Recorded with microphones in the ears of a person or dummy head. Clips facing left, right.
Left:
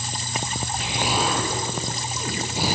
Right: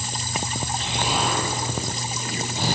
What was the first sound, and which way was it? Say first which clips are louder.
An explosion: left 1 dB; 10° left (ahead or behind).